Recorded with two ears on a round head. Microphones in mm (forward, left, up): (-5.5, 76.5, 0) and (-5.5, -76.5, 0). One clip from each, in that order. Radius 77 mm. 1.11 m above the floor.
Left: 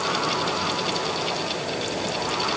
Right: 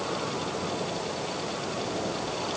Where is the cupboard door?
I don't hear a cupboard door.